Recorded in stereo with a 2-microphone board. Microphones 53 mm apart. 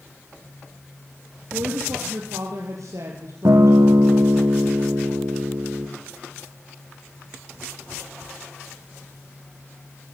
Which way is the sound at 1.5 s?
70° right (ahead or behind).